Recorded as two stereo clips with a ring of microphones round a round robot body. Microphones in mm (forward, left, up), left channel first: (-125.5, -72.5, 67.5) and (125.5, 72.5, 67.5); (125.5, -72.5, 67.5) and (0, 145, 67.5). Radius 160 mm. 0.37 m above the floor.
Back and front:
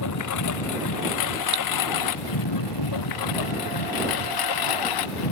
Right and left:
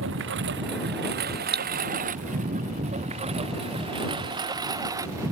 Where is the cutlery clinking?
65° left.